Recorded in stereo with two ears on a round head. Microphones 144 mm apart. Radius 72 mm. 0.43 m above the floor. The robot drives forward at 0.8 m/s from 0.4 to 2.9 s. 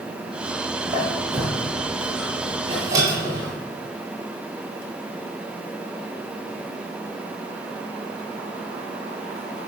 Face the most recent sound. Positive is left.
turn(degrees=-20)  # may be behind; listen again after turning